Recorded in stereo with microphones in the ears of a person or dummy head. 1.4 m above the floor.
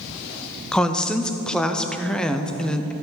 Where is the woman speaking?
5° left (ahead or behind), 0.6 m.